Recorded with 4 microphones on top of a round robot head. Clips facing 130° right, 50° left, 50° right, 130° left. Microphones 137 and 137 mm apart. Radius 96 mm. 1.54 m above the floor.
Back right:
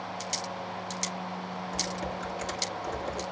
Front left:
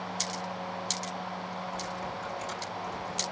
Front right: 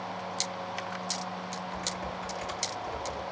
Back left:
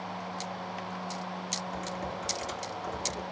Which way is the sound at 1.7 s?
165° right.